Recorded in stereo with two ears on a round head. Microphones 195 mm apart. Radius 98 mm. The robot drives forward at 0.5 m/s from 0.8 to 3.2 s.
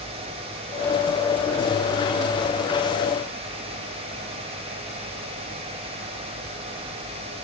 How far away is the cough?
No cough in this recording.